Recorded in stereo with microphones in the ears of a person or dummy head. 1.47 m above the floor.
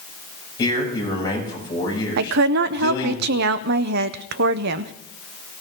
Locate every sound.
0.6 s a man speaking: 25° left (ahead or behind), 7.5 m
2.2 s a woman speaking: 65° right (ahead or behind), 0.7 m